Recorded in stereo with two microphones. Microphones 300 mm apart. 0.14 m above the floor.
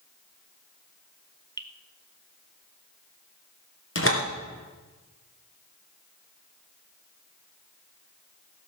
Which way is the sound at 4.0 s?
45° left (ahead or behind).